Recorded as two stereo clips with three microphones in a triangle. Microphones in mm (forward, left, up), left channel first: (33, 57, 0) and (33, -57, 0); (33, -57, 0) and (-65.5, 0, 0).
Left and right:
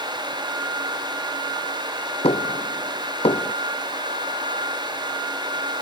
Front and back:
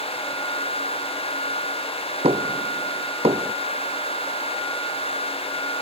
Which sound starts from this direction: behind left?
Knocking, at 2.2 s.